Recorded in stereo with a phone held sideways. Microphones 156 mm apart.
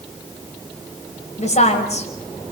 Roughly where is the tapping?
I don't hear tapping.